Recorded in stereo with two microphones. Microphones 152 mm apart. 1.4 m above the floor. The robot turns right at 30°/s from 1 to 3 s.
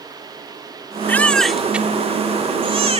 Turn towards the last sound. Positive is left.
turn(degrees=-45)  # may be behind; listen again after turning